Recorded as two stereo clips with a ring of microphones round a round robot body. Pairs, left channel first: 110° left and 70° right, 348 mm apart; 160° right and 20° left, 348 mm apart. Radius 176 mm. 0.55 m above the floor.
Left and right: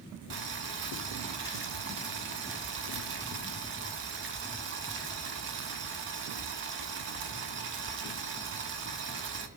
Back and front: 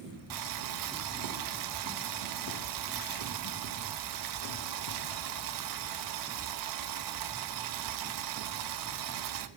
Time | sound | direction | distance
0.3 | boiling | 10° right | 0.9 m